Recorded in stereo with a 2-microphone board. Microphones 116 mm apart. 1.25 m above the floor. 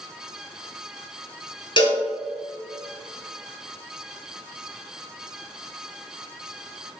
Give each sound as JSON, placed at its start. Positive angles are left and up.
{"t": 1.8, "sound": "a cowbell", "side_deg": 40, "distance_m": 1.1}